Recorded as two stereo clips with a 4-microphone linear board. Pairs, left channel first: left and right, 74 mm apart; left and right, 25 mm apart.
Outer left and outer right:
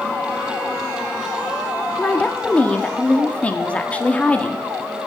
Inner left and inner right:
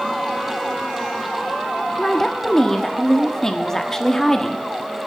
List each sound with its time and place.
2.0 s a woman speaking: 20° left (ahead or behind), 0.9 m